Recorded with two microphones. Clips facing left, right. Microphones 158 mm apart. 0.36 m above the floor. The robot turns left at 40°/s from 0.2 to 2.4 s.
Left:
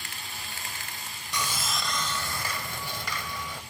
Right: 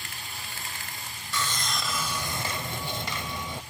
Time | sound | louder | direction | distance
1.3 | sawing | even | 20° left | 0.6 m